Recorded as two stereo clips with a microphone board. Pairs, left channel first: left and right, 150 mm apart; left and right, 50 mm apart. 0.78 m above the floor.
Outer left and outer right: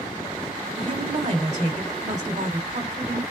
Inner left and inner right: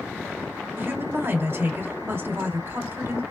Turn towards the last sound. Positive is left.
turn(degrees=-55)  # may be behind; listen again after turning